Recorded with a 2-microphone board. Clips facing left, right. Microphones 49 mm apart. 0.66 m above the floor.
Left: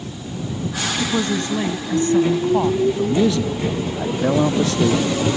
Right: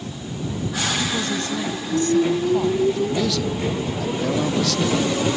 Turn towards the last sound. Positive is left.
turn(degrees=25)  # may be behind; listen again after turning